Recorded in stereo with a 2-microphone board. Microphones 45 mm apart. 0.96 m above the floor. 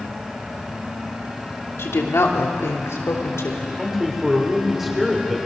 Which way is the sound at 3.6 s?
10° right (ahead or behind).